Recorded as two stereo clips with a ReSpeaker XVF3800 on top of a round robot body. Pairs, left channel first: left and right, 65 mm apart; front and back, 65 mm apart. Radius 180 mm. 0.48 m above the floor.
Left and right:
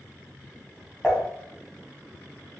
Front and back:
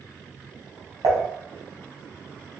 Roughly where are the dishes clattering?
Behind.